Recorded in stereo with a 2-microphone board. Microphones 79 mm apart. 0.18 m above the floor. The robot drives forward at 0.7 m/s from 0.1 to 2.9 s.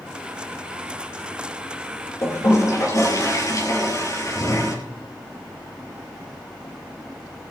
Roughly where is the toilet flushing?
Left.